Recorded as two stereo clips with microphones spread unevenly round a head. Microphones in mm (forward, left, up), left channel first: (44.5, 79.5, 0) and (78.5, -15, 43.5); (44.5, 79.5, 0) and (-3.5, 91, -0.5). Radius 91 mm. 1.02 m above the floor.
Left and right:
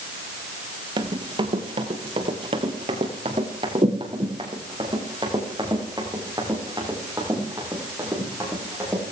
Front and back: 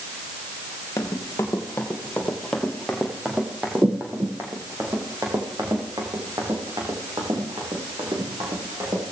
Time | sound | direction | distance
1.0 | running footsteps | 55° right | 2 m